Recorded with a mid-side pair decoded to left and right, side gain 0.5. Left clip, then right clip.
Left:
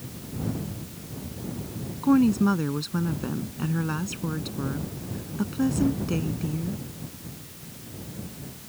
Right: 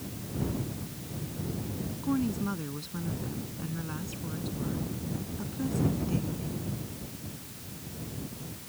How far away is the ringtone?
I don't hear a ringtone.